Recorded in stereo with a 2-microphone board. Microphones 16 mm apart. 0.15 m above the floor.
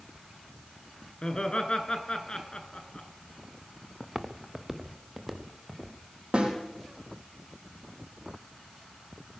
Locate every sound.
1.2 s laughter: 50° left (ahead or behind), 1.6 m
4.0 s footsteps: 20° right (ahead or behind), 0.9 m
6.3 s a snare drum: 70° right (ahead or behind), 4.5 m